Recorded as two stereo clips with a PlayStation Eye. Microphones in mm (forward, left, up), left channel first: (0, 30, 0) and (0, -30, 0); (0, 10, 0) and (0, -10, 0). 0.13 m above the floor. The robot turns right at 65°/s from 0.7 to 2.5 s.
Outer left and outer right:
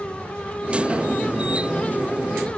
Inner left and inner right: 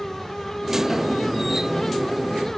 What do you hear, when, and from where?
Only background noise.